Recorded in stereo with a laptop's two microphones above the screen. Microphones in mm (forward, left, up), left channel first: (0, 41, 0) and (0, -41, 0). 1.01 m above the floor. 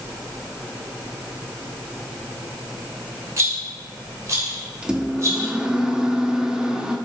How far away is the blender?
No blender in this recording.